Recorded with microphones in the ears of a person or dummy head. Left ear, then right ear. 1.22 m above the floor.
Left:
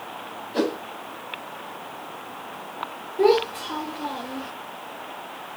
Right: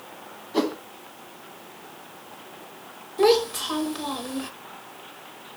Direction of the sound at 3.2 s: 45° right (ahead or behind).